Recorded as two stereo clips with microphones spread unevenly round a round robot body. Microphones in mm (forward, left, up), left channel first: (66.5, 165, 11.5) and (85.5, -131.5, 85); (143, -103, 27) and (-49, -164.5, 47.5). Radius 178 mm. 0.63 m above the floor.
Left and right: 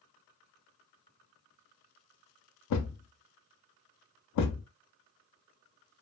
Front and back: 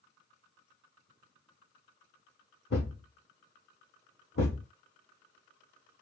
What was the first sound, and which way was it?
A thud, 70° left.